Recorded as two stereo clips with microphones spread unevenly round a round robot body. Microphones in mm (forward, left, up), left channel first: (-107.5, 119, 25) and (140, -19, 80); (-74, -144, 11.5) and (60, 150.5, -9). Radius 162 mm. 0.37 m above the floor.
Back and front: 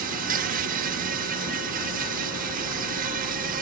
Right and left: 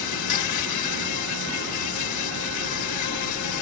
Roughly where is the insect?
Right.